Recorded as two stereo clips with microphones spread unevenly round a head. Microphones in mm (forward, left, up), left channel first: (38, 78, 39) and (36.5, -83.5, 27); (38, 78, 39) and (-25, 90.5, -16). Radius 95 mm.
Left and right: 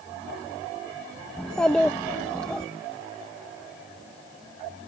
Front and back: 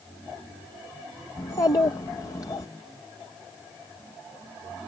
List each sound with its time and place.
1.4 s a child speaking: 5° left